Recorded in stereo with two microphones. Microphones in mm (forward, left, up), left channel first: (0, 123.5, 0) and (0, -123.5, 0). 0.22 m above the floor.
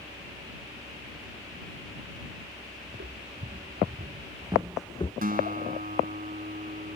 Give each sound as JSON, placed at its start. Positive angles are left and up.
{"t": 2.9, "sound": "footsteps", "side_deg": -55}
{"t": 5.2, "sound": "a guitar", "side_deg": -40}